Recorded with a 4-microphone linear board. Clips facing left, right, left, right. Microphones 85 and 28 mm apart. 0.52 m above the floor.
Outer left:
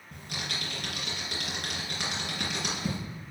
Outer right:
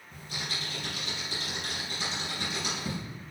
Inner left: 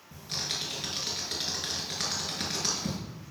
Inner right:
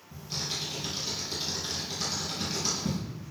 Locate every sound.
0.1 s typing on a keyboard: 65° left (ahead or behind), 3 m